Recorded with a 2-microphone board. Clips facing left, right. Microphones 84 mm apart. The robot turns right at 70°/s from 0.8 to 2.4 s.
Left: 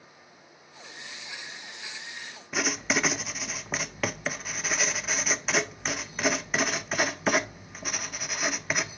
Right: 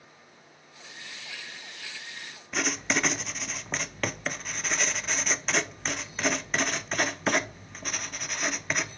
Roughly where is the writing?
Centre.